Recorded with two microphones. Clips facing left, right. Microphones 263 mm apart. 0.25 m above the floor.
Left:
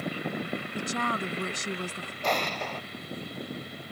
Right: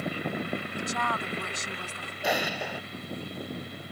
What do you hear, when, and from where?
0.8 s a woman speaking: 35° left (ahead or behind)
2.2 s an explosion: 10° right (ahead or behind)